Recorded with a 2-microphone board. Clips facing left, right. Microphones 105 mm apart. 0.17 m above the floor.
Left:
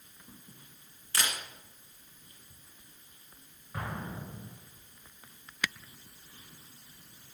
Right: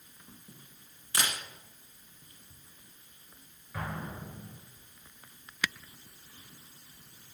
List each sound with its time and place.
1.1 s a camera shutter: 15° right (ahead or behind), 1.7 m
3.7 s an explosion: 25° left (ahead or behind), 2.5 m